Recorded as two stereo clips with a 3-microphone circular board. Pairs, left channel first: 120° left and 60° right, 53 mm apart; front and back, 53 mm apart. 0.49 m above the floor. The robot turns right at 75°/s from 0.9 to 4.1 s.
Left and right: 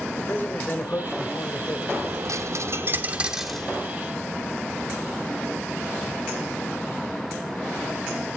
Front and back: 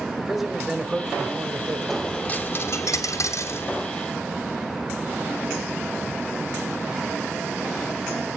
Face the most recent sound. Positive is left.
turn(degrees=75)